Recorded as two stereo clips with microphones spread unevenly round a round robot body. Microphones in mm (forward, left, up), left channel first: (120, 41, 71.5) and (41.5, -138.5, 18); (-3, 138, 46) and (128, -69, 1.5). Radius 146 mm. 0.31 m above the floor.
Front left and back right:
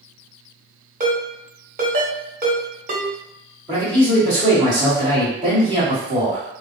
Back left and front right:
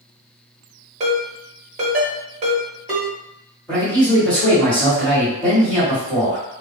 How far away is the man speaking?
About 1.3 m.